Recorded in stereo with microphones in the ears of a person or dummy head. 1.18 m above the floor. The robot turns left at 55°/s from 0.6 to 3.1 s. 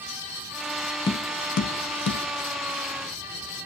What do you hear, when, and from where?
1.1 s tapping: 20° left (ahead or behind), 0.7 m; by 2.2 s 60° left (ahead or behind), 0.7 m